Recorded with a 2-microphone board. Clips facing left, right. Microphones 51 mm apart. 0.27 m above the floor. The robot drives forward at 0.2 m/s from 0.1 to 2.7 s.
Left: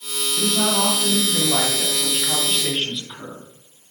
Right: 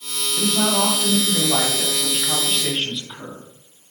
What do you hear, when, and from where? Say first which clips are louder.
0.4 s a woman speaking: right 1 dB; 15° right (ahead or behind), 1.5 m; by 3.4 s 10° right (ahead or behind), 1.6 m